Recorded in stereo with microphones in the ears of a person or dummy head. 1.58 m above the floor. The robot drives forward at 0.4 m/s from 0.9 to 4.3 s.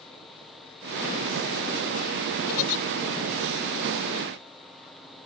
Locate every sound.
2.5 s a giggle: 75° left (ahead or behind); by 2.8 s 90° left